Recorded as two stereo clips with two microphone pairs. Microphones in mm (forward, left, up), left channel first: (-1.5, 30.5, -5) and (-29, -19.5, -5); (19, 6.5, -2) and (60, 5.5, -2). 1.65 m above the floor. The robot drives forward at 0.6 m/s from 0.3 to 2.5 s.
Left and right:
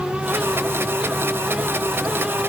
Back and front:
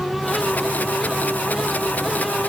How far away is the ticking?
I don't hear ticking.